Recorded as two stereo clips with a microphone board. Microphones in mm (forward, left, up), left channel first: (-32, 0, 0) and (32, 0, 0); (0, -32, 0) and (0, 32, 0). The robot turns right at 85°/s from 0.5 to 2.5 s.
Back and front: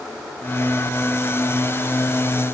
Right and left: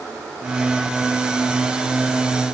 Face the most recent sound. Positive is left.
No sound to turn to.